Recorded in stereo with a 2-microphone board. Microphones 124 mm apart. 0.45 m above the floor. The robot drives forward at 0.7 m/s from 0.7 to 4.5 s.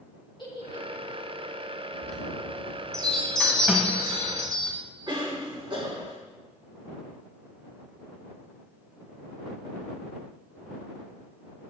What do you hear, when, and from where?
0.4 s a giggle: 40° left (ahead or behind), 2.5 m; by 1.3 s 45° left (ahead or behind), 2.5 m
2.0 s a chime: 5° left (ahead or behind), 3 m
3.7 s a snare drum: 5° right (ahead or behind), 1.6 m
5.1 s a cough: 40° right (ahead or behind), 3.5 m